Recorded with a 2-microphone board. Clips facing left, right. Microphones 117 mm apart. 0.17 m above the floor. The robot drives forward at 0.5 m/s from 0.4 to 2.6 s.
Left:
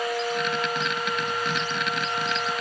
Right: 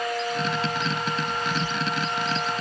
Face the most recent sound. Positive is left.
No sound to turn to.